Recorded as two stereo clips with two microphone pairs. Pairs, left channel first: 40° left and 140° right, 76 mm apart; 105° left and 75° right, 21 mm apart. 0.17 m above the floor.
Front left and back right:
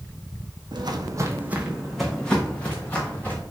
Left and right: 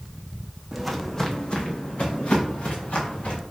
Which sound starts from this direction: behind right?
Footsteps, at 0.7 s.